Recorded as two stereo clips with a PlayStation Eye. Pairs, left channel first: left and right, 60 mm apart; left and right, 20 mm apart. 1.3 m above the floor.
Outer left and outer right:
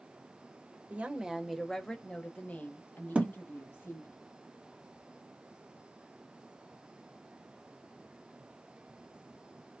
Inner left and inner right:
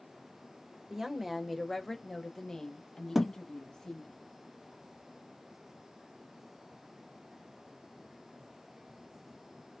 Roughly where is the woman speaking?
Right.